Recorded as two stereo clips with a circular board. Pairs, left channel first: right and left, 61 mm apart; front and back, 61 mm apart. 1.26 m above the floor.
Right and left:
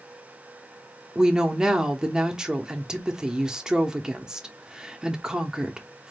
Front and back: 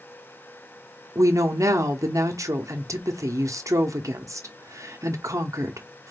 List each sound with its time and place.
1.1 s a woman speaking: 170° left, 0.8 m